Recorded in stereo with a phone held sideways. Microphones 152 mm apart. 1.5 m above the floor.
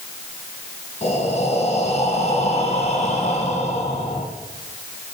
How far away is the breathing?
About 3.5 m.